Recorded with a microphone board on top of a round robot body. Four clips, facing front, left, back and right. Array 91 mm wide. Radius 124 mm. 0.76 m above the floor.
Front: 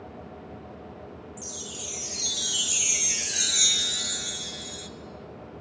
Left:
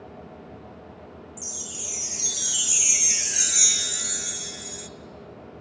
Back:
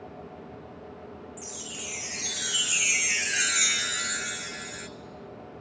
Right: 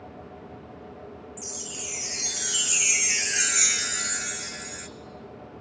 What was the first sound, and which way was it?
A chime, 140° right.